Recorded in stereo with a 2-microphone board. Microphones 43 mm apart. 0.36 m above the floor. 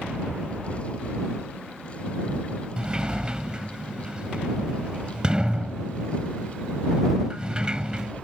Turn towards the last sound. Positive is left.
turn(degrees=-20)  # may be behind; listen again after turning